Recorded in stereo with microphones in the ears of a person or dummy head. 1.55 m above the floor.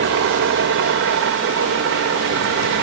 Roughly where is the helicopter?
Right.